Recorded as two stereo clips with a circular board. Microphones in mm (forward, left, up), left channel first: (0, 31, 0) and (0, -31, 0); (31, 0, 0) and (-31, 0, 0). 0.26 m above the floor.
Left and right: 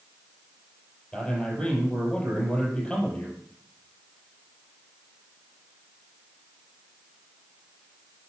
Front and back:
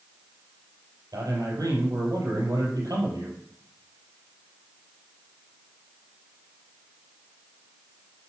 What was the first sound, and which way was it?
A man speaking, 165° left.